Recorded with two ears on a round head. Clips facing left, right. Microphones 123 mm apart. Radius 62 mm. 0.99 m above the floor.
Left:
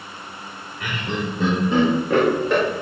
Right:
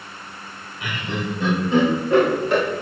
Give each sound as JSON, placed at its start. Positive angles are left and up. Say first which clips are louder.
{"t": 0.8, "sound": "laughter", "louder": "left 1 dB", "side_deg": 45, "distance_m": 2.5}